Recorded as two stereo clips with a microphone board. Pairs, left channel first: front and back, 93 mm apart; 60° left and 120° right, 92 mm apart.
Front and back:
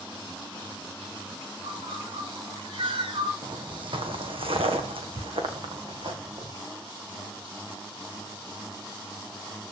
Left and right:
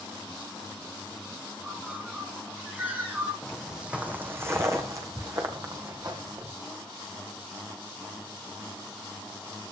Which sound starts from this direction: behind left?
Footsteps, at 3.4 s.